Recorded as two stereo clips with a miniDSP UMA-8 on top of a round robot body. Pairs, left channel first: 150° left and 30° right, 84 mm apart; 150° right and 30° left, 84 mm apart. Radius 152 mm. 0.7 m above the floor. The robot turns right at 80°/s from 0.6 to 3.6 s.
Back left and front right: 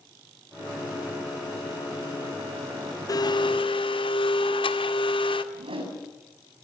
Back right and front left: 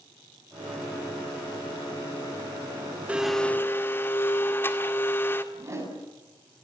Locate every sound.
3.1 s a blender: 105° left, 2 m; by 5.4 s 145° left, 2 m
5.5 s a whoosh: 30° right, 7.5 m